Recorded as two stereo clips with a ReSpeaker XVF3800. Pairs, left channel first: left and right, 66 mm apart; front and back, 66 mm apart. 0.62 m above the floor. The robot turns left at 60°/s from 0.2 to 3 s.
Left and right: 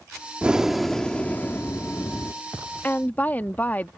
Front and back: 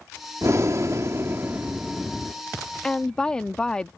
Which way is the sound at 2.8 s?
75° left.